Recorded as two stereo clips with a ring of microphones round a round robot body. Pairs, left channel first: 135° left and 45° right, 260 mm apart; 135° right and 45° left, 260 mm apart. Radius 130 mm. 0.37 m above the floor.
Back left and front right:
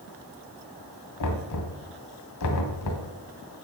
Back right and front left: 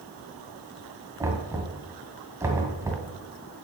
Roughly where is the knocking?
Behind left.